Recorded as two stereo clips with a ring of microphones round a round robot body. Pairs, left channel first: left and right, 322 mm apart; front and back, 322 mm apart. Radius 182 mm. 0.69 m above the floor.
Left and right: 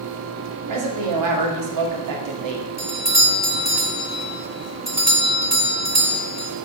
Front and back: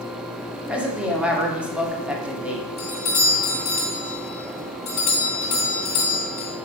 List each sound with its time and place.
0.7 s a woman speaking: 95° right, 2 m
2.8 s a doorbell: 10° right, 2 m